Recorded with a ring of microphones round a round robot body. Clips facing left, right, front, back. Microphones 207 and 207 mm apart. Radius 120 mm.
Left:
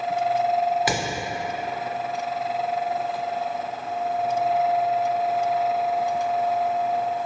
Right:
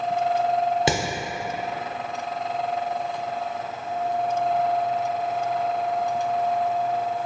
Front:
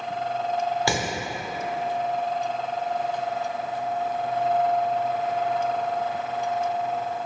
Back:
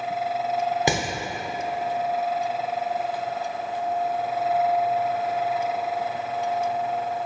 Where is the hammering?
125° right, 0.6 m.